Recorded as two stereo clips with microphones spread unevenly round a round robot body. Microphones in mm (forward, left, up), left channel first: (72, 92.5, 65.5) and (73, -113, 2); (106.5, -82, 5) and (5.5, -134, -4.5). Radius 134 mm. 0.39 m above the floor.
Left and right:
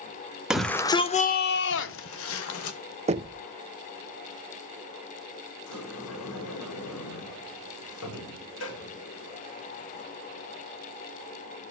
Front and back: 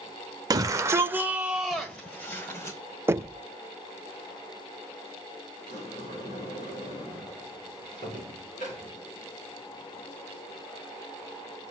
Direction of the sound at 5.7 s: 90° left.